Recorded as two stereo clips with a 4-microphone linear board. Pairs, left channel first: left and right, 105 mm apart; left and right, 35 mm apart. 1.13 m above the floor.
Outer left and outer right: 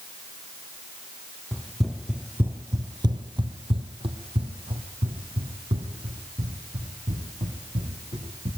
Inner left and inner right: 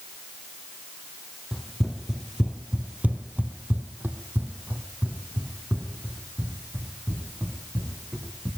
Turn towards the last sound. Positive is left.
turn(degrees=-55)  # may be behind; listen again after turning